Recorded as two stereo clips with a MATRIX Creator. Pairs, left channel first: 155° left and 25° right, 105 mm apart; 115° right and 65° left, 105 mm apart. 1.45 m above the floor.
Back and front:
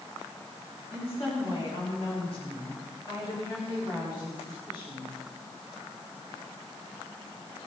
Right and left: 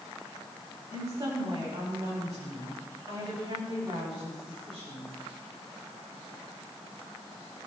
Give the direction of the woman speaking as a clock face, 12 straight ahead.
8 o'clock.